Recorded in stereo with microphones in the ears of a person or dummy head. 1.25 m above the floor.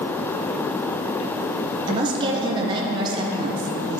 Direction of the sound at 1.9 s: 30° right (ahead or behind).